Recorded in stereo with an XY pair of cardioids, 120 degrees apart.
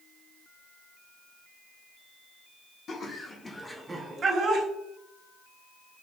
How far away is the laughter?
About 0.8 m.